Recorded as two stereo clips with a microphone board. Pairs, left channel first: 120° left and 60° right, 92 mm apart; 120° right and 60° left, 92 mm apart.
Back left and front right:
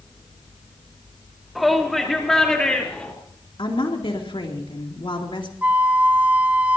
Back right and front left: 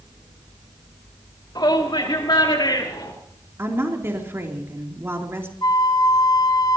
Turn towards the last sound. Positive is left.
turn(degrees=-125)